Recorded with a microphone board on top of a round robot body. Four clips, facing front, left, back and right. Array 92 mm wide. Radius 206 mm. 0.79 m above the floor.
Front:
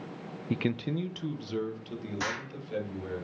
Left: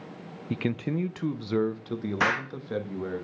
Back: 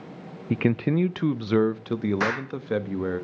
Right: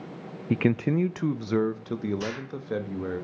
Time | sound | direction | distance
0.5 | a man speaking | 125° right | 0.5 m
2.2 | an explosion | 125° left | 1.0 m